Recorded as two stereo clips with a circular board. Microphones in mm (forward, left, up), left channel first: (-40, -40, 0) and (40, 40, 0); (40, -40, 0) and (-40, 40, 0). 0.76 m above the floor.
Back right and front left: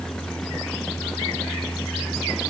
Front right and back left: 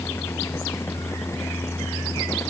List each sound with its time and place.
Only background noise.